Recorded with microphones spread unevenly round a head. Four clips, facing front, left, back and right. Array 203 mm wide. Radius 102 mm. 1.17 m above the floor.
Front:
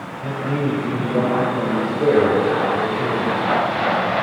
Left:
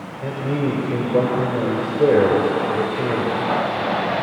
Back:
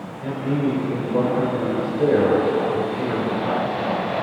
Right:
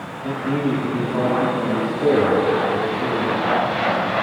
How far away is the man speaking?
About 5.5 m.